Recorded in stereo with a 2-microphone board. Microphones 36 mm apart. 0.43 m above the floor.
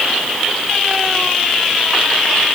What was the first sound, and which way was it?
Only background noise.